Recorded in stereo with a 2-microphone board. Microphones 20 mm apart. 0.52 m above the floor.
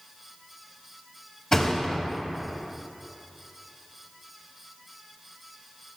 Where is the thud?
35° left (ahead or behind), 1.4 m.